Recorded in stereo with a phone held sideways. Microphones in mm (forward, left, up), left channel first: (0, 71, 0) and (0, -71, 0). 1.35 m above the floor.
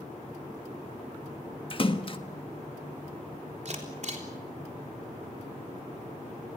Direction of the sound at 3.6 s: 55° right (ahead or behind).